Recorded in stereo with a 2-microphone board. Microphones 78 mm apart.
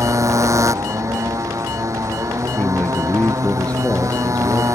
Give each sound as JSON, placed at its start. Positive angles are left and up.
{"t": 0.0, "sound": "a motorcycle", "side_deg": -40}
{"t": 2.5, "sound": "a man speaking", "side_deg": 15}